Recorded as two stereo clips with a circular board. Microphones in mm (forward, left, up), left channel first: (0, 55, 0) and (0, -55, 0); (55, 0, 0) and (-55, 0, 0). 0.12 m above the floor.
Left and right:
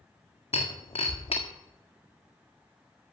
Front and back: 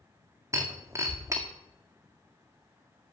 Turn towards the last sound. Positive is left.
turn(degrees=120)